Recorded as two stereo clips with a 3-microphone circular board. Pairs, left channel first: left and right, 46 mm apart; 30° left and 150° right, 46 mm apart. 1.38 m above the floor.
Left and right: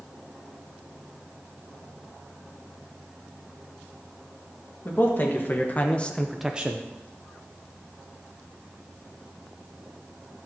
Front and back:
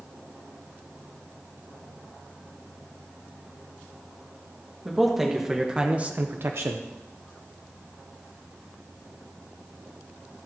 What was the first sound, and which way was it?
A man speaking, 120° left.